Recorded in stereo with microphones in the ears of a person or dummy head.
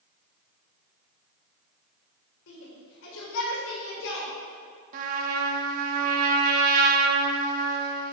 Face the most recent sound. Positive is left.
turn(degrees=-50)  # may be behind; listen again after turning